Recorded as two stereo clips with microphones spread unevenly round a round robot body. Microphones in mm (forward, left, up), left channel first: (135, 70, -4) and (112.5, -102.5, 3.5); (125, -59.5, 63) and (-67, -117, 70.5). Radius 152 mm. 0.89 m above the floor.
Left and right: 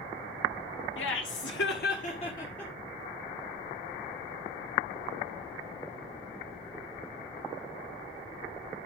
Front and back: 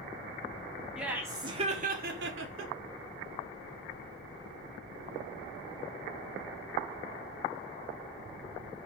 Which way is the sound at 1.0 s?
110° left.